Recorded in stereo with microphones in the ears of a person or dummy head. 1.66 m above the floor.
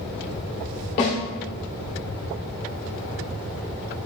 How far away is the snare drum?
About 1.9 m.